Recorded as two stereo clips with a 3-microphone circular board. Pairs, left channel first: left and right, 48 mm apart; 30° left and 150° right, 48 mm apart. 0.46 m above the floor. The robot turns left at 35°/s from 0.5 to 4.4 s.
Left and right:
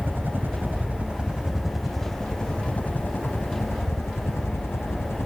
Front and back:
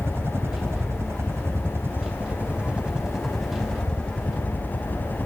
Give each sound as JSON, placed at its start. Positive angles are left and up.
{"t": 0.0, "sound": "a helicopter", "azimuth_deg": -125}